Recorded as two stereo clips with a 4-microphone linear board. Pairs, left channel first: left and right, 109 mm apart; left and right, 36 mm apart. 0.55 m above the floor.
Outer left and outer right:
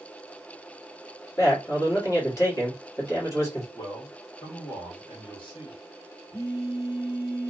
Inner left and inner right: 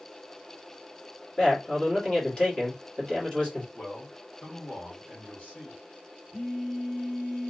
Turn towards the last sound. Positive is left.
turn(degrees=30)  # may be behind; listen again after turning